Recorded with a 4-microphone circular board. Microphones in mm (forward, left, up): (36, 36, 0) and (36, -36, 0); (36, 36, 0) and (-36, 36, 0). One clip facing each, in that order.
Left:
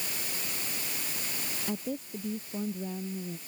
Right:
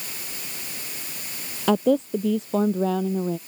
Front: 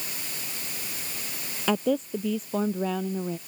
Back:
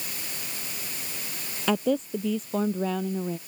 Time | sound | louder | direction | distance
1.7 | a woman speaking | right 17 dB, even | 90° right | ?